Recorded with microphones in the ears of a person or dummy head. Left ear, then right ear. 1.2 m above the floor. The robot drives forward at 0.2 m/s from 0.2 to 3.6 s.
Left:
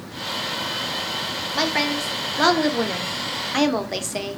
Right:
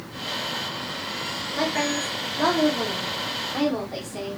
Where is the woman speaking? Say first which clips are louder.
Left 3 dB; 45° left (ahead or behind), 0.7 m; by 4.4 s 70° left (ahead or behind), 0.5 m.